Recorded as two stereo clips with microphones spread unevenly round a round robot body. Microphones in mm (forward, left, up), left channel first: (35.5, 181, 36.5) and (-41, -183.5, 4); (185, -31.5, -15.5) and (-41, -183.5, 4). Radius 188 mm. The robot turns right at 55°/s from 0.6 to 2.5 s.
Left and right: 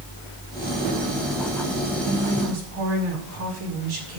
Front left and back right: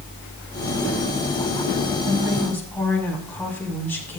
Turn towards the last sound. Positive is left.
turn(degrees=-50)